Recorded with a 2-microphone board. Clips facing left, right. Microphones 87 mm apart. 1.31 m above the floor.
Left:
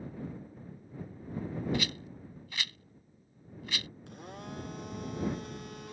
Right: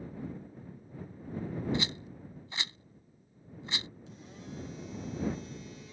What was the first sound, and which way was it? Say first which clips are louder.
A rattle: even; 25° right (ahead or behind).